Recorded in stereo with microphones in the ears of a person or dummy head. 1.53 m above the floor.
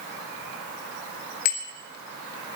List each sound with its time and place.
1.4 s a bicycle bell: 50° left (ahead or behind), 3 m